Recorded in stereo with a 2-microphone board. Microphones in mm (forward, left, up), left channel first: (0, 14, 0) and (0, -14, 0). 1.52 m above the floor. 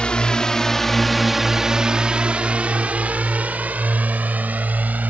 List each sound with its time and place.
0.0 s a drone: 35° left (ahead or behind); by 5.1 s 75° right (ahead or behind)